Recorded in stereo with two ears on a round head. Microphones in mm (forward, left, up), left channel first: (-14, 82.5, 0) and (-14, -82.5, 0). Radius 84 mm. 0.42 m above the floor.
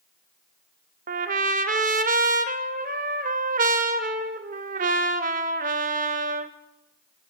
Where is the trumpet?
45° right (ahead or behind), 0.6 m.